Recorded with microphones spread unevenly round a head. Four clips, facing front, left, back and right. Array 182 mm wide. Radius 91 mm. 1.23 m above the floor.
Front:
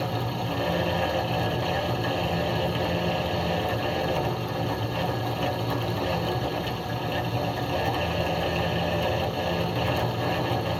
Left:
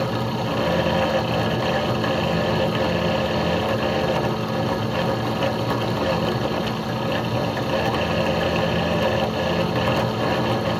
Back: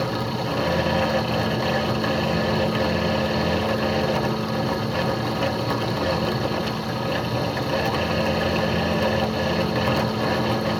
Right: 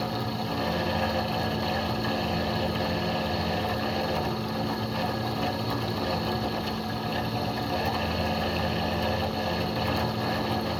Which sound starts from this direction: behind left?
A fan, at 0.0 s.